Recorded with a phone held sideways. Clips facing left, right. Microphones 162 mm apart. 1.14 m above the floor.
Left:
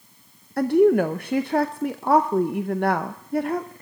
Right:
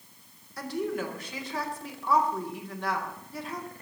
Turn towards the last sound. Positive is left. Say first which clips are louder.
# left 15 dB
turn(degrees=55)  # may be behind; listen again after turning